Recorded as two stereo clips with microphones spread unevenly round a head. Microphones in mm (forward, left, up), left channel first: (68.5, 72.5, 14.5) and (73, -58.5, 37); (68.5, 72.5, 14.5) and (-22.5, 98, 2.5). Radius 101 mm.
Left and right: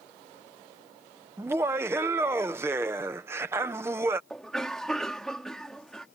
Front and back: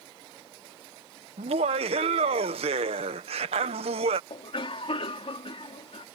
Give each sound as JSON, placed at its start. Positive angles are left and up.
{"t": 1.4, "sound": "laughter", "azimuth_deg": -165}
{"t": 4.3, "sound": "a cough", "azimuth_deg": 5}